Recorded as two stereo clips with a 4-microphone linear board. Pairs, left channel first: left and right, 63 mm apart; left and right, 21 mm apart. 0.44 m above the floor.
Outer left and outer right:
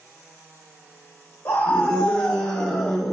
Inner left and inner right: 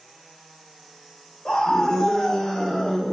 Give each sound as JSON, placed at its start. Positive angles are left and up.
{"t": 1.4, "sound": "a scream", "side_deg": 25, "distance_m": 1.0}